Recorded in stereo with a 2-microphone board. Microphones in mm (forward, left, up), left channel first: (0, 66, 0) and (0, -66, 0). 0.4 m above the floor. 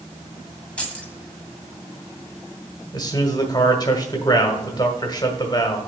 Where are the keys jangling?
10° left (ahead or behind), 1.7 m.